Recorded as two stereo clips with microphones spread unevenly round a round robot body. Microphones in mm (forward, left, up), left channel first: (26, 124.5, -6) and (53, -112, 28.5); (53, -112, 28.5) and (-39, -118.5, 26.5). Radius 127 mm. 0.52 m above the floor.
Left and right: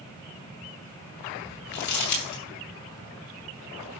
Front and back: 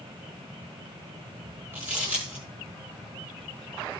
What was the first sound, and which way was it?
Crumpling, 105° left.